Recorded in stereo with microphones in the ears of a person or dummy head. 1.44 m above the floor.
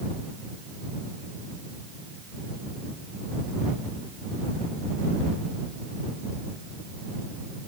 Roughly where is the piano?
No piano in this recording.